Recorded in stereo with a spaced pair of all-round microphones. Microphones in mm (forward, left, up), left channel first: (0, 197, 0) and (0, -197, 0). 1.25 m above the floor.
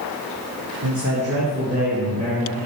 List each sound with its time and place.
0.8 s a man speaking: 50° right (ahead or behind), 1.4 m; by 2.7 s 10° right (ahead or behind), 2.5 m